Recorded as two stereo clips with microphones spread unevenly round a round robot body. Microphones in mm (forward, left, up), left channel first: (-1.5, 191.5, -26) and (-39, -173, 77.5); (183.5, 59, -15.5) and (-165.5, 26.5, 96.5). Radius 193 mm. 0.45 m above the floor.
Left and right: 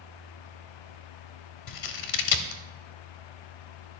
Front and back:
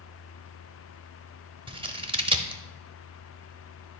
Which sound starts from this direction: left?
Scissors, at 1.7 s.